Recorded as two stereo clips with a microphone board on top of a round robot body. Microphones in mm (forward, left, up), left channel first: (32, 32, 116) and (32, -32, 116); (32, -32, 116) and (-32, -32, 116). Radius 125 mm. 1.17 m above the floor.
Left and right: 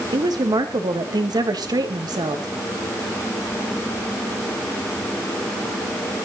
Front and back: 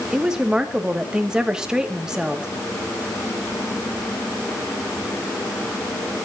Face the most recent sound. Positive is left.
turn(degrees=-100)